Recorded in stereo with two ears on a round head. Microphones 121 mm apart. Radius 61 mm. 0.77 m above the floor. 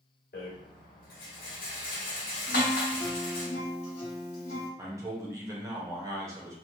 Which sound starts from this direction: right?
A man speaking, at 4.8 s.